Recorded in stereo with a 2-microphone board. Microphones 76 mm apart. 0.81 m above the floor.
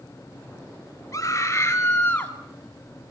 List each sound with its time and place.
1.1 s a scream: 45° left (ahead or behind), 2.5 m; by 2.3 s 20° left (ahead or behind), 2.0 m